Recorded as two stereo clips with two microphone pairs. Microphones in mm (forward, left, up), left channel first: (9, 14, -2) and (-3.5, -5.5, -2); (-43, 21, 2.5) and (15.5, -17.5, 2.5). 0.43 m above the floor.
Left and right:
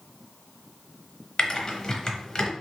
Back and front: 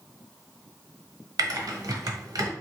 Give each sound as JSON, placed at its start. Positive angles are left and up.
{"t": 1.4, "sound": "typing on a keyboard", "azimuth_deg": -5, "distance_m": 0.6}